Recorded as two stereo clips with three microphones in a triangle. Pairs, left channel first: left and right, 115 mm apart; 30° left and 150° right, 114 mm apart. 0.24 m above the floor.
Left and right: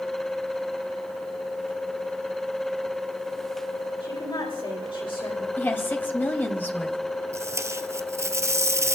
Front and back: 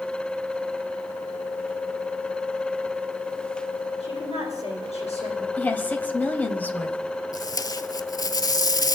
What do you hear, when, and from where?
4.0 s a woman speaking: 45° left, 10 m
5.6 s a woman speaking: 70° left, 1.6 m
7.3 s tape being pulled: 25° right, 0.8 m